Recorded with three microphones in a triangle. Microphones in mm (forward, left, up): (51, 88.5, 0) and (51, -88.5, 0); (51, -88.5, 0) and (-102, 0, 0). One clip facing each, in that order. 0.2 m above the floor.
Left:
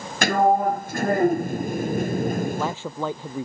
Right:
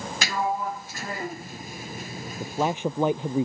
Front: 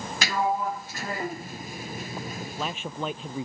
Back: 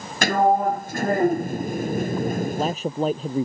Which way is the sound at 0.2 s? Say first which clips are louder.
Left 10 dB, back 8 dB; 120° left.